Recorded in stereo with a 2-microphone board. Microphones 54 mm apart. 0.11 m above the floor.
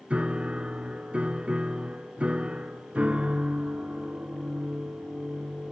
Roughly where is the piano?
Right.